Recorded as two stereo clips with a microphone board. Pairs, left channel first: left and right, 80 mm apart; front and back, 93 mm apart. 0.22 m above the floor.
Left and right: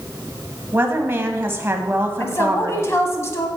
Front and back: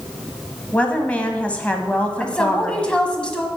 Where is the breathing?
No breathing in this recording.